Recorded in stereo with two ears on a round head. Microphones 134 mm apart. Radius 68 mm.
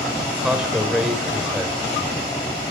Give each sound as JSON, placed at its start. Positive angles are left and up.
{"t": 0.3, "sound": "a man speaking", "side_deg": -5, "distance_m": 2.5}